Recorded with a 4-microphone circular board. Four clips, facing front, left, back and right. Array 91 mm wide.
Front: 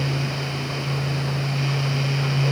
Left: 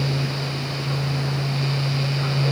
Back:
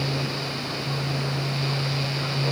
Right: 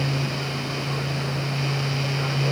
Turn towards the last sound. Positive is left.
No sound to turn to.